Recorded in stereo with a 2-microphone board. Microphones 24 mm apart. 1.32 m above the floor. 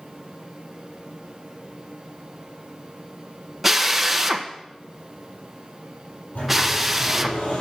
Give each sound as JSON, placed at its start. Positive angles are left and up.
{"t": 3.6, "sound": "a drill", "side_deg": -5, "distance_m": 1.1}
{"t": 6.3, "sound": "a sliding door", "side_deg": 80, "distance_m": 10.0}